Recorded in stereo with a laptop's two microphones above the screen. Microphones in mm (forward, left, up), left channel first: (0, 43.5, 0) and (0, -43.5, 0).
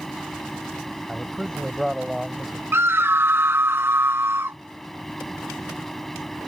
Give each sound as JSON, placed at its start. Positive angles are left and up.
{"t": 0.0, "sound": "a fan", "side_deg": 5}
{"t": 1.1, "sound": "a man speaking", "side_deg": -5}
{"t": 2.7, "sound": "a scream", "side_deg": -30}